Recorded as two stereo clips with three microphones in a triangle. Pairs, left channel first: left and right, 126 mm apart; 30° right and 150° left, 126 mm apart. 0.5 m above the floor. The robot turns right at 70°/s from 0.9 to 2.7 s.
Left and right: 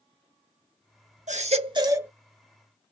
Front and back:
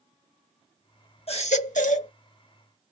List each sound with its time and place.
1.3 s a baby crying: 70° right, 0.8 m; by 2.1 s 10° right, 0.8 m